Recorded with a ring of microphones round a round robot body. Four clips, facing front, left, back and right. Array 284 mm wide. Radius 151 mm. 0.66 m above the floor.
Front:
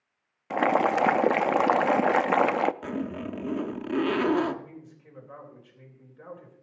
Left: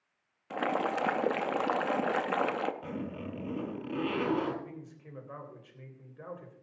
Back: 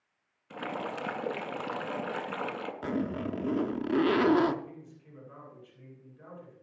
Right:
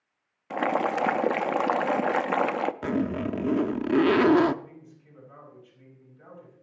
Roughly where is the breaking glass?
No breaking glass in this recording.